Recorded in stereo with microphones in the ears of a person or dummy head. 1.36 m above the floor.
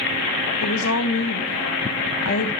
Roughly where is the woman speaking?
Left.